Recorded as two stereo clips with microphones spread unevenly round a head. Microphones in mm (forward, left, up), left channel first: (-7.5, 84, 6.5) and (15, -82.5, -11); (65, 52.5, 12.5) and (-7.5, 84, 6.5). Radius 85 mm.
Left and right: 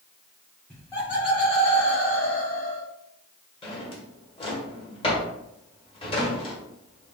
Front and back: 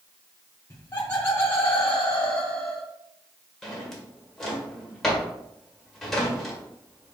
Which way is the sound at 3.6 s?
60° left.